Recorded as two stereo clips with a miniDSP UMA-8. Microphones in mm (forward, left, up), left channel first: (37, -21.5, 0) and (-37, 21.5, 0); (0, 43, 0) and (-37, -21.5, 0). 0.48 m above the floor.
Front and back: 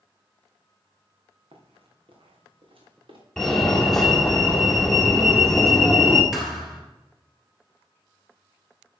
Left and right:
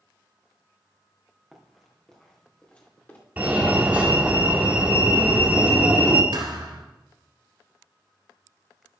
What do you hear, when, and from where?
1.5 s running footsteps: 155° left, 3 m; by 3.2 s 130° left, 4 m
3.4 s a fire alarm: 110° right, 1.6 m
6.3 s a thud: 120° right, 2 m